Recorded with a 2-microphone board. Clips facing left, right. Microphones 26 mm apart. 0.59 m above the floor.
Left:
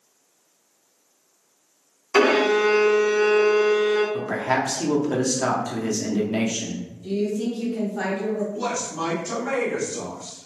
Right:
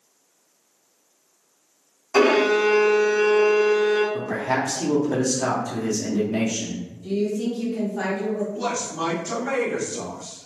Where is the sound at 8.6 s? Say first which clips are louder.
Even; 15° left (ahead or behind), 1.4 m.